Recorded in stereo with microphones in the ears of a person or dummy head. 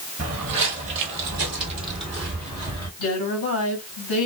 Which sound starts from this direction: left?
A woman speaking, at 3.0 s.